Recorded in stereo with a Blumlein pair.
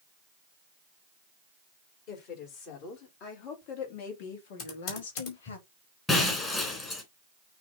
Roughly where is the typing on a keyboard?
Ahead left.